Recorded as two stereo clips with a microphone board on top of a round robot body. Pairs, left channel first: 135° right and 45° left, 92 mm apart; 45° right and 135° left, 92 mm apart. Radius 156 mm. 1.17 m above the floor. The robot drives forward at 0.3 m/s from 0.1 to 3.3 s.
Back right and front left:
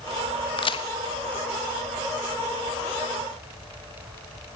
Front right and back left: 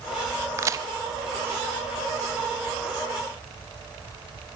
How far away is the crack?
About 0.8 m.